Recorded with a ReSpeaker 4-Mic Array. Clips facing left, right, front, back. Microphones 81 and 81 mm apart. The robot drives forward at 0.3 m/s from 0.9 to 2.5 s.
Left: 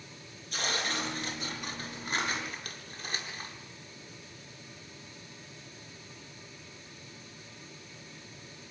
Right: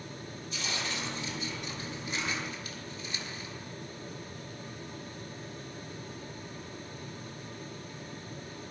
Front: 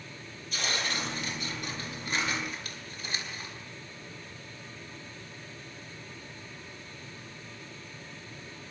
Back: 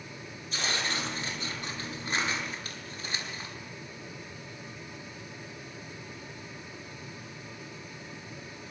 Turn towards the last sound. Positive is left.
turn(degrees=130)